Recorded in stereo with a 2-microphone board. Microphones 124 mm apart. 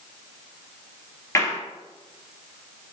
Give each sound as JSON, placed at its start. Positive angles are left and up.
{"t": 1.4, "sound": "a clap", "side_deg": 25, "distance_m": 3.0}